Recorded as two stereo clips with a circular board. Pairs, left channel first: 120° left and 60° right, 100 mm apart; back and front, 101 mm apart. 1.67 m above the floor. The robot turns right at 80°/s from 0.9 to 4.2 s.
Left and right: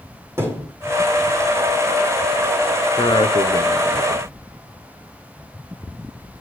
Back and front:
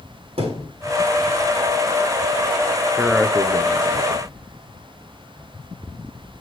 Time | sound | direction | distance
0.4 | a thud | 5° left | 4.5 m
3.0 | a man speaking | 75° left | 0.7 m